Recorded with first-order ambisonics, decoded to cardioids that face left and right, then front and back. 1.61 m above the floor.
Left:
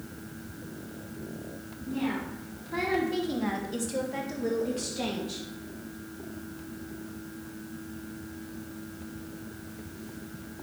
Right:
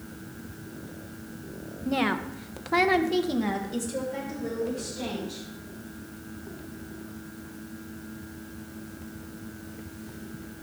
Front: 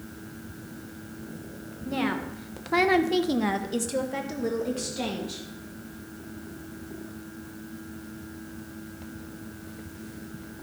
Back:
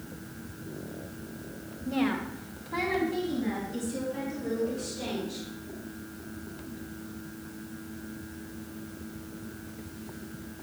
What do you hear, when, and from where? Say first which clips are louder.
1.9 s a woman speaking: right 6 dB, front 1 dB; 80° right, 1.3 m; by 5.5 s 35° left, 2 m